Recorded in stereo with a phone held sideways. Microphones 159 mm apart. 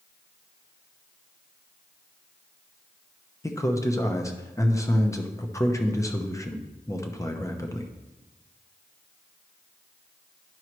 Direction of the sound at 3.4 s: 20° left (ahead or behind).